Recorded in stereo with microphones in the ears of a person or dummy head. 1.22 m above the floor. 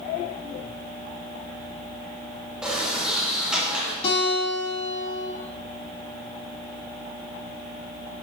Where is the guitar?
30° left (ahead or behind), 2 m.